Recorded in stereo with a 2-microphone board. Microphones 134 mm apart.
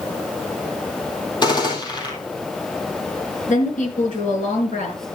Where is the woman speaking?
70° left (ahead or behind), 4 m.